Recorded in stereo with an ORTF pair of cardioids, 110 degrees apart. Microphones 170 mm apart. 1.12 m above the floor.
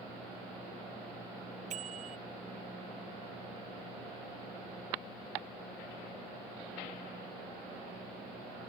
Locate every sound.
1.7 s a bicycle bell: 45° right